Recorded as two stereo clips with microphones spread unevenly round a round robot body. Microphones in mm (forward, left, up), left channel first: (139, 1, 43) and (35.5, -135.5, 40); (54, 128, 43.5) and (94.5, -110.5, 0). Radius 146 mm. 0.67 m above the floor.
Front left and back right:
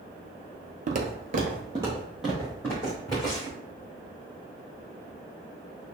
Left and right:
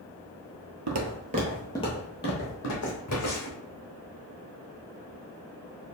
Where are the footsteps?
100° right, 1.0 m; by 3.6 s 130° left, 3 m.